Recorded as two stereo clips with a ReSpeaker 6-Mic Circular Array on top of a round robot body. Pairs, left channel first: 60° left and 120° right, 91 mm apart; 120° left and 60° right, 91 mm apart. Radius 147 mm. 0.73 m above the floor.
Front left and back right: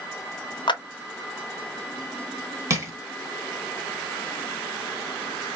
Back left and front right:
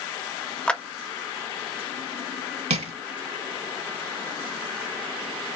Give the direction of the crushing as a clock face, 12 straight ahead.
2 o'clock.